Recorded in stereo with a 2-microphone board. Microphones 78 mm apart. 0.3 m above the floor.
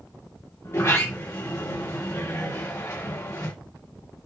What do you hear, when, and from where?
0.6 s a sliding door: 30° left (ahead or behind), 6.5 m